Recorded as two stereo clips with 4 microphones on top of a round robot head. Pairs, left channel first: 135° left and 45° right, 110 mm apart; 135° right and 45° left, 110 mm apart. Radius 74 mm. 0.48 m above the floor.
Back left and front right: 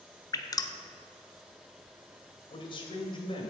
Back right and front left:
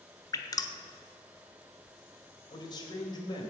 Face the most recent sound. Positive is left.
turn(degrees=175)